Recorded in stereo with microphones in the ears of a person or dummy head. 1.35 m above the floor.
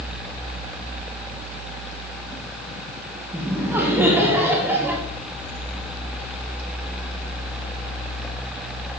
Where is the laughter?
10° right (ahead or behind), 1.4 m.